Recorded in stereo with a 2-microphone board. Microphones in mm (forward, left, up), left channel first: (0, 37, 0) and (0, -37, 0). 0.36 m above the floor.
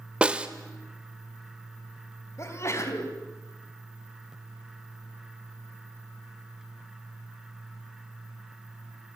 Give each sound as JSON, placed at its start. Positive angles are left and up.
{"t": 0.2, "sound": "a snare drum", "side_deg": -15, "distance_m": 1.1}
{"t": 2.4, "sound": "a sneeze", "side_deg": 40, "distance_m": 3.5}